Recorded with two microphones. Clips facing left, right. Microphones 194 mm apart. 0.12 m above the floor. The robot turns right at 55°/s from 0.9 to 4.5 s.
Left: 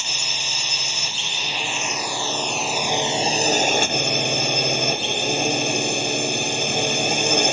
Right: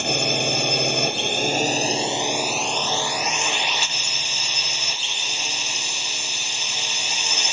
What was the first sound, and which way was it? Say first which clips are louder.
A drone: right 13 dB; 95° right.